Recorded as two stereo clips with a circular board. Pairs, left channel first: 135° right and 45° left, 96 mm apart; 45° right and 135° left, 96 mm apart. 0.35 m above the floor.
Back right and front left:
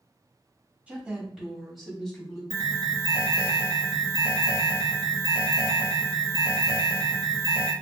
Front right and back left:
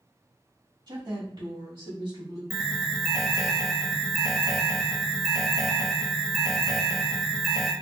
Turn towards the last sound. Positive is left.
turn(degrees=45)